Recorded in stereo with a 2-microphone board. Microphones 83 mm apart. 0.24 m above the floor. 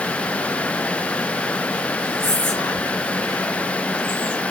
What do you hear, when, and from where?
2.2 s whispering: 10° left (ahead or behind), 1.4 m